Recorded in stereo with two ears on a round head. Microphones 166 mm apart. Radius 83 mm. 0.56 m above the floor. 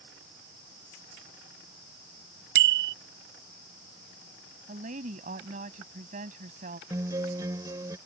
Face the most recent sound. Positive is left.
turn(degrees=-20)  # may be behind; listen again after turning